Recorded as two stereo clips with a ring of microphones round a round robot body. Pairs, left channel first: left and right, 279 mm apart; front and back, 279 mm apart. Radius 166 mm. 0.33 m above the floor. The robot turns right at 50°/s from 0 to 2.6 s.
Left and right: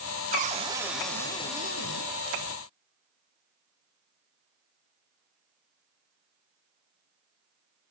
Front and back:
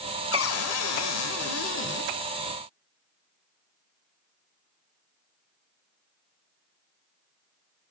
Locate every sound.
0.3 s a cupboard door: 35° right, 0.9 m; by 2.1 s 55° left, 0.9 m